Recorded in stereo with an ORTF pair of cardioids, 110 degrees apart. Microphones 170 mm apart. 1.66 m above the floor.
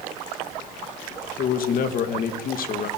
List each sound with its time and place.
1.4 s a man speaking: 55° left, 2.5 m